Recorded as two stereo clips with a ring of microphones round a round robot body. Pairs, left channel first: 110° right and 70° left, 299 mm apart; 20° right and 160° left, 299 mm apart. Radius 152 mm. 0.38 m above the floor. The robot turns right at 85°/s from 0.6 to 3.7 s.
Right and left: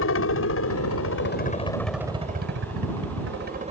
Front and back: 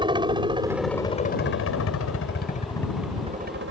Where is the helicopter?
135° right; by 3.7 s 130° left.